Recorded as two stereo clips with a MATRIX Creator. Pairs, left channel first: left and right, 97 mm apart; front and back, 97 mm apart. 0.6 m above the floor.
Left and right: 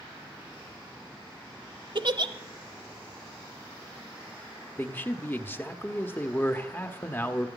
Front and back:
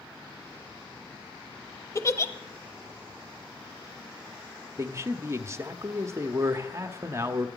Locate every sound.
1.9 s a giggle: 55° right, 0.8 m
4.8 s a man speaking: 140° left, 0.9 m